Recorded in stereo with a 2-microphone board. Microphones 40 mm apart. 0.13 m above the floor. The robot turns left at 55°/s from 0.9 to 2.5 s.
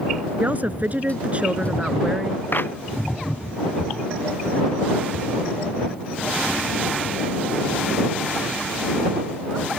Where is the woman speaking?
100° right; by 2.4 s 175° left.